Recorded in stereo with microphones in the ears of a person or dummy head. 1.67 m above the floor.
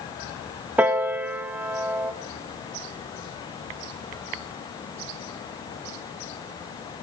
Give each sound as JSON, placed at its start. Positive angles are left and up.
{"t": 0.8, "sound": "a piano", "side_deg": -10, "distance_m": 1.0}